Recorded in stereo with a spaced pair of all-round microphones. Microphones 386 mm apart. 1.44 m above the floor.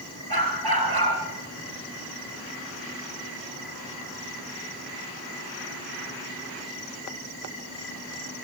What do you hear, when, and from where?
0.3 s a dog barking: 70° right (ahead or behind), 7 m